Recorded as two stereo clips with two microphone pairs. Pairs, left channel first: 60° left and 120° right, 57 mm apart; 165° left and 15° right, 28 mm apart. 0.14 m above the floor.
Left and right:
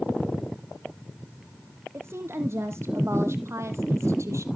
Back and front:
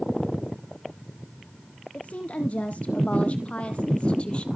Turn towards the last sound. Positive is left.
turn(degrees=-150)